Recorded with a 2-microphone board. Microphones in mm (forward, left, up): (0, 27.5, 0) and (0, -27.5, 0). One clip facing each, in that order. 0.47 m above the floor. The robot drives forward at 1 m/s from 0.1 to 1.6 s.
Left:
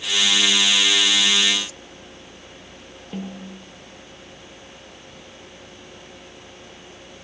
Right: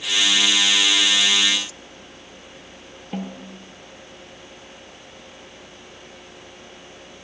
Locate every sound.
3.1 s a snare drum: 25° right (ahead or behind), 2.5 m